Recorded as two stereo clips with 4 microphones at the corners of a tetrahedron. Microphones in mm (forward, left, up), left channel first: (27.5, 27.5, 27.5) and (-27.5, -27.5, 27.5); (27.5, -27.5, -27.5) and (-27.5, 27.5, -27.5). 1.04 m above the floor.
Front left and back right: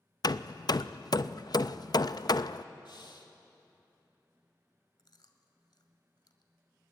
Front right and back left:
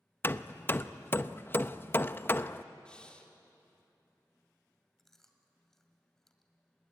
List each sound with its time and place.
0.2 s hammering: 15° left, 0.5 m
2.9 s breathing: 30° left, 2 m
5.0 s chewing: 40° left, 1.8 m